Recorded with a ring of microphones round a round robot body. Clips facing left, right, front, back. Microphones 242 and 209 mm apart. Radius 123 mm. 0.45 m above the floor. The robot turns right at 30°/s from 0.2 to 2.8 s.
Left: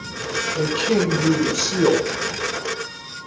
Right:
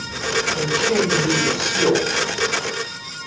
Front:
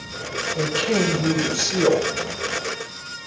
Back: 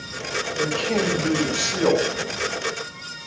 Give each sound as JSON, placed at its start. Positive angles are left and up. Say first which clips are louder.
{"t": 0.6, "sound": "a woman speaking", "louder": "left 2 dB, front 2 dB", "azimuth_deg": 20, "distance_m": 6.0}